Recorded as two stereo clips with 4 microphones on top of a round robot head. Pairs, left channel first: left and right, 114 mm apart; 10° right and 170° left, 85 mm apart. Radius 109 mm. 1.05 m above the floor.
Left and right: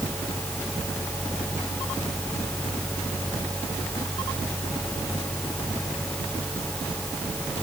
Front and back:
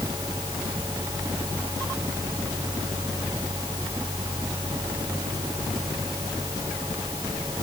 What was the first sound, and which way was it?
Only background noise.